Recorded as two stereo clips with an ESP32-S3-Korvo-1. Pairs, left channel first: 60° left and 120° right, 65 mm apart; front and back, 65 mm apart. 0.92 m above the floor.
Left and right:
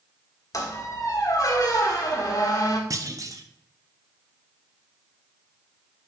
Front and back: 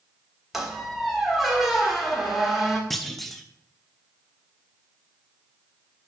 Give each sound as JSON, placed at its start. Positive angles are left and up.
{"t": 0.5, "sound": "a squeak", "azimuth_deg": 95, "distance_m": 1.6}
{"t": 2.9, "sound": "a clunk", "azimuth_deg": -85, "distance_m": 0.7}